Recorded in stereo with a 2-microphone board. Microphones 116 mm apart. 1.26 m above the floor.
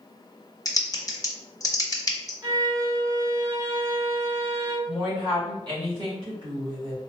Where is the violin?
30° right (ahead or behind), 1.4 m.